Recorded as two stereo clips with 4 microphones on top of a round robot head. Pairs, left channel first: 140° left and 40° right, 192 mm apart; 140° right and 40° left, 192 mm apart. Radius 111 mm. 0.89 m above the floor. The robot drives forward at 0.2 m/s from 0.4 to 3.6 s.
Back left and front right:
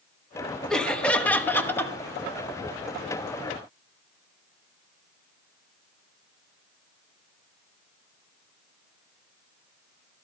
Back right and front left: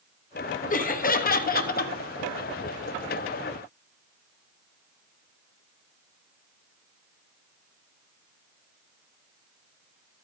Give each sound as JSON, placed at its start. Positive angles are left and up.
{"t": 0.7, "sound": "laughter", "azimuth_deg": -135, "distance_m": 1.1}